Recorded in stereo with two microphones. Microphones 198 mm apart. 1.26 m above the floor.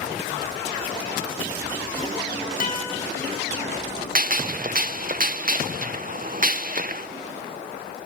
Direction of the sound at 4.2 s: 45° right (ahead or behind).